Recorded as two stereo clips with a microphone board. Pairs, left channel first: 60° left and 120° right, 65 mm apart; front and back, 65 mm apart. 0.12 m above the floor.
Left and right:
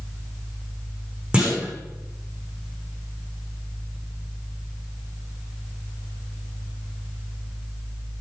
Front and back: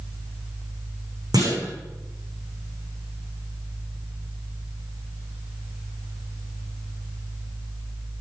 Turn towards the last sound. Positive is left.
turn(degrees=165)